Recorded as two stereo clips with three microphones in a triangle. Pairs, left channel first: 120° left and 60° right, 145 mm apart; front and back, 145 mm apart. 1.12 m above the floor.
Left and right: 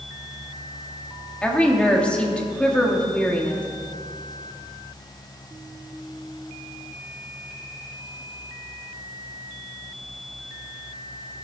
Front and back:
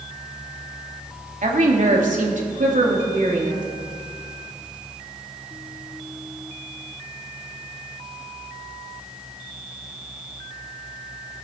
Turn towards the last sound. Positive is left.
turn(degrees=-160)